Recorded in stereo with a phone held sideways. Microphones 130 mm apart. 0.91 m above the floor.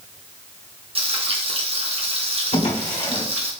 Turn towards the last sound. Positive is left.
turn(degrees=60)  # may be behind; listen again after turning